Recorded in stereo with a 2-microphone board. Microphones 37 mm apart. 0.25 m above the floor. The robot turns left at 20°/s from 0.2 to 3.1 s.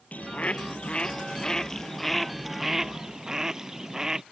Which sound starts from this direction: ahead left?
A bird, at 0.1 s.